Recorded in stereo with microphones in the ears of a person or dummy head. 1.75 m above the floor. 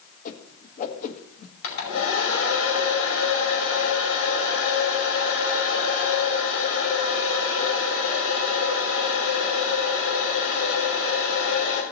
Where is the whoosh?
45° left (ahead or behind), 1.6 m.